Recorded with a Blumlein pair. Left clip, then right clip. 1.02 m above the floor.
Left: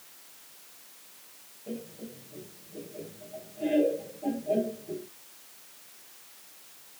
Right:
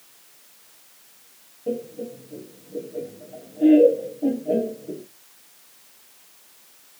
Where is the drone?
No drone in this recording.